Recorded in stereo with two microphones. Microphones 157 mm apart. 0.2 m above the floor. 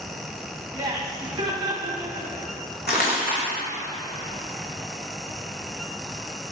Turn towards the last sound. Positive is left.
turn(degrees=85)